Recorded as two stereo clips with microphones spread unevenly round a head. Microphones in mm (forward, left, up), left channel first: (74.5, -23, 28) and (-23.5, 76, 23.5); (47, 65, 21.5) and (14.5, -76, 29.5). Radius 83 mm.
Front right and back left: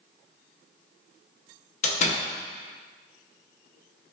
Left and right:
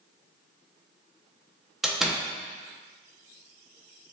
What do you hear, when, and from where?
1.8 s a door slam: 15° right, 0.6 m